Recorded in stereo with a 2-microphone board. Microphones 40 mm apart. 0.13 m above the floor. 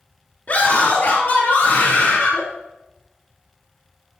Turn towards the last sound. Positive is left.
turn(degrees=65)  # may be behind; listen again after turning